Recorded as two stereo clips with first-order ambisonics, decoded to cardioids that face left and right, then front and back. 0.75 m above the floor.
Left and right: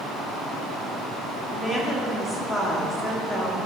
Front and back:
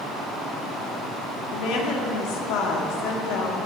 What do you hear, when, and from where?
1.5 s a woman speaking: 5° right, 1.2 m